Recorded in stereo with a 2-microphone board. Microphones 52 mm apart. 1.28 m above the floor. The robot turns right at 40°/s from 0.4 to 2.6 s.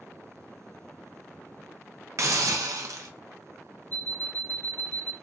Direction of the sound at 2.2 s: 60° right (ahead or behind).